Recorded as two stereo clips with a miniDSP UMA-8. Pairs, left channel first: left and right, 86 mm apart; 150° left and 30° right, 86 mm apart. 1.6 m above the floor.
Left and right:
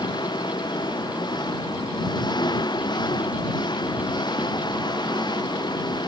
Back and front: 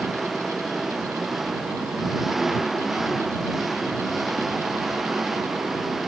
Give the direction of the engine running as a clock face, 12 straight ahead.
10 o'clock.